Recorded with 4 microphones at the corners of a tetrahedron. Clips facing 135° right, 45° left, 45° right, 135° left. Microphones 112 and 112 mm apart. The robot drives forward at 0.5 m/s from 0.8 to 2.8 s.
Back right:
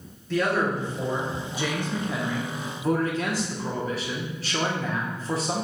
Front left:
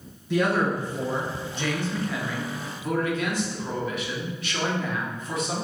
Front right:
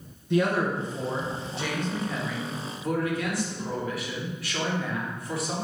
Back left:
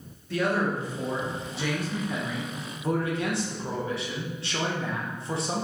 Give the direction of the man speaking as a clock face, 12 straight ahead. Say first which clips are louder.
Front left 1 dB, front right 2 dB; 12 o'clock.